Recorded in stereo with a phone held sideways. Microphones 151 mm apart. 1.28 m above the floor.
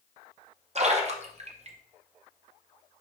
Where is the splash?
45° right (ahead or behind), 0.6 m.